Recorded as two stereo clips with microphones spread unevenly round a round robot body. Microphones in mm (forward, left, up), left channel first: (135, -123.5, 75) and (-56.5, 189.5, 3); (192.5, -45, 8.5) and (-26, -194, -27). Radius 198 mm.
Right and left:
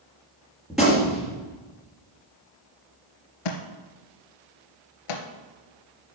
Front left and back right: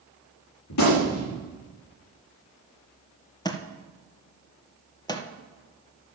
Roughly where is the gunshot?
Ahead left.